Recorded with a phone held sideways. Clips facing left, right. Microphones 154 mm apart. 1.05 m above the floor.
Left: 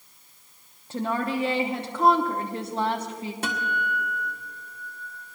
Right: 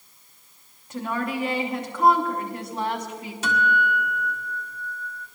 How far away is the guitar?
About 1.7 m.